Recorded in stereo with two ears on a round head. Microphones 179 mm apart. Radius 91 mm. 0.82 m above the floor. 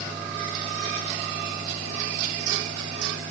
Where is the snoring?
No snoring in this recording.